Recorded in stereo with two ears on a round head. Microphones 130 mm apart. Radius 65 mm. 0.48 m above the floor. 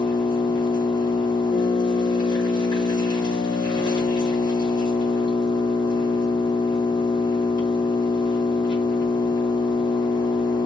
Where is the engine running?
30° left (ahead or behind), 1.1 m.